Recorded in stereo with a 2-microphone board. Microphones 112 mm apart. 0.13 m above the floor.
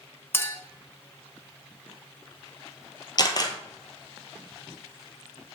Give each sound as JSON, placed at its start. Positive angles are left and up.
{"t": 0.3, "sound": "a clink", "side_deg": 20, "distance_m": 1.0}
{"t": 3.2, "sound": "a camera shutter", "side_deg": 40, "distance_m": 1.0}